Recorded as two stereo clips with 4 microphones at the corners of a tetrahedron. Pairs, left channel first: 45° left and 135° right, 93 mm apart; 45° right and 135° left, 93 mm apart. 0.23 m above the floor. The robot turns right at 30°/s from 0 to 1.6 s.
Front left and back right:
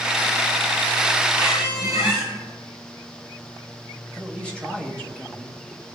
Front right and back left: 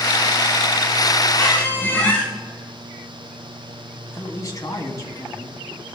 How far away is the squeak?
About 5 m.